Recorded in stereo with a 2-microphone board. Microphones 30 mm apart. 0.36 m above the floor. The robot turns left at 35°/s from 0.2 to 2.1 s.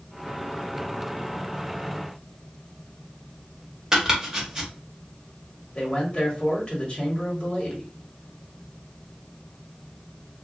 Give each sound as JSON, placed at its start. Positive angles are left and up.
{"t": 3.9, "sound": "chopping", "side_deg": -15, "distance_m": 0.8}
{"t": 5.8, "sound": "a man speaking", "side_deg": 30, "distance_m": 1.3}